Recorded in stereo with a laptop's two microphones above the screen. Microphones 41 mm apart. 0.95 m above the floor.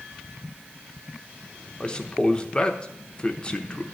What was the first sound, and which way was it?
A man speaking, 25° left (ahead or behind).